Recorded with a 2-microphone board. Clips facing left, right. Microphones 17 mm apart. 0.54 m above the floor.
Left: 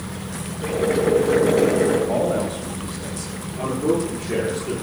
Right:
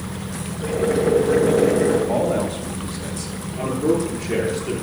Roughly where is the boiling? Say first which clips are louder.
Even; left.